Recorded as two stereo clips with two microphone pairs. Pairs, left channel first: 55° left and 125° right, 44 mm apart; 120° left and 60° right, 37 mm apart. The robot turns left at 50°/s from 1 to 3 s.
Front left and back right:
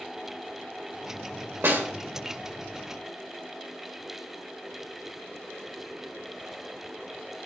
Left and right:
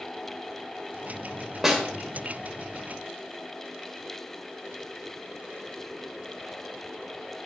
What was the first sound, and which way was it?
A snare drum, 135° right.